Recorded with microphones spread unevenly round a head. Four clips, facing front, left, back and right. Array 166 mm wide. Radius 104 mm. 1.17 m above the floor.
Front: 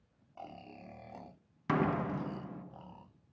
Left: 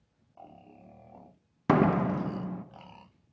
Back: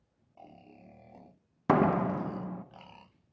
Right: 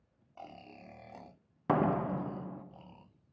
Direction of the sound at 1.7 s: 120° left.